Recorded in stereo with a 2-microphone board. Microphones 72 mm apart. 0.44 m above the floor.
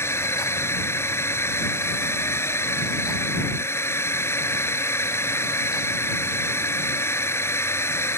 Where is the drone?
35° left (ahead or behind).